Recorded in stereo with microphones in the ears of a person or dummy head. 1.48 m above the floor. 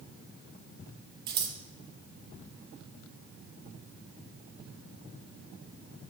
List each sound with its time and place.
1.3 s scissors: 20° right (ahead or behind), 1.1 m